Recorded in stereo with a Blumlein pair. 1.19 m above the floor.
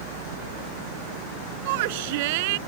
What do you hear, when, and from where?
1.6 s a shout: 50° right